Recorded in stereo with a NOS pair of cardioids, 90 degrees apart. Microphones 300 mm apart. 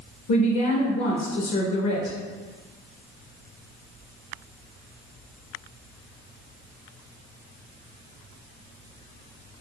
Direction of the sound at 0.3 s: 65° left.